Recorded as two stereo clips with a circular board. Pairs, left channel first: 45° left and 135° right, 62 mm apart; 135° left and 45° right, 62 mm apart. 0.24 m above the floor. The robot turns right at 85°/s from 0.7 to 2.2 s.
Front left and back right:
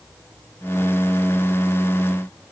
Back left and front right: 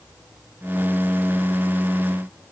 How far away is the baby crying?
I don't hear a baby crying.